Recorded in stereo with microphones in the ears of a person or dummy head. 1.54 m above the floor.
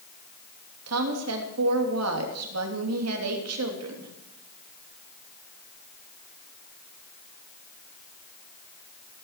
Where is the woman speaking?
85° right, 3 m.